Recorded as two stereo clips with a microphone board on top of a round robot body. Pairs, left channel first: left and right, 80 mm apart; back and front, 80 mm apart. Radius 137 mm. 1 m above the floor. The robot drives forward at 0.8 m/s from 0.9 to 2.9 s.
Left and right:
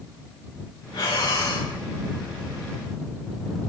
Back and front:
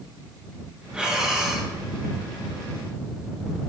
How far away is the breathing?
About 4.5 m.